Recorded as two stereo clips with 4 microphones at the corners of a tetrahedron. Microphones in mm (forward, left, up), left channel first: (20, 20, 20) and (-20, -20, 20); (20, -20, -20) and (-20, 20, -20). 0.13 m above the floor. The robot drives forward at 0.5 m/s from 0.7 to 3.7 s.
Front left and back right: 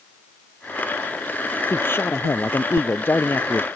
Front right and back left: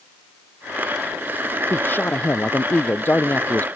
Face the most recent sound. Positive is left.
turn(degrees=5)